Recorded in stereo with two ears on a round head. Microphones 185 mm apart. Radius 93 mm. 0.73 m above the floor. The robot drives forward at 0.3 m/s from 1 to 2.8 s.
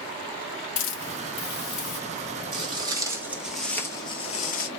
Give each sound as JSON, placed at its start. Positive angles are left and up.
{"t": 0.8, "sound": "a hiss", "side_deg": 65, "distance_m": 0.8}
{"t": 2.5, "sound": "footsteps", "side_deg": -30, "distance_m": 1.4}